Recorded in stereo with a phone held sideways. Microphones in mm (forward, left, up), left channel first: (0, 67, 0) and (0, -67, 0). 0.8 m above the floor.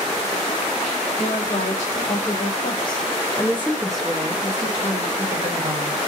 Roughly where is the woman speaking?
Left.